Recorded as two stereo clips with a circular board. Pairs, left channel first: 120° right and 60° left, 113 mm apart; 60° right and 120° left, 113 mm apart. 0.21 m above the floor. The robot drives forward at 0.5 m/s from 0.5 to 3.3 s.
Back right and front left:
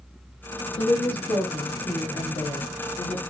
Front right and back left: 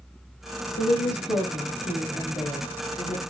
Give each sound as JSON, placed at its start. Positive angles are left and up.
{"t": 0.8, "sound": "a woman speaking", "azimuth_deg": -75, "distance_m": 2.5}